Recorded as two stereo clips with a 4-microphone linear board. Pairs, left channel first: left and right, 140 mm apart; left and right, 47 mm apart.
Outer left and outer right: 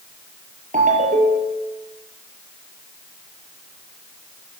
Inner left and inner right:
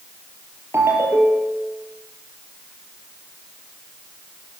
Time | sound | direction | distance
0.7 | a ringtone | 65° right (ahead or behind) | 3 m